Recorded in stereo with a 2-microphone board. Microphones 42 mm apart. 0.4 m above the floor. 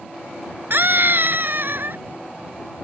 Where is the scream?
55° right (ahead or behind).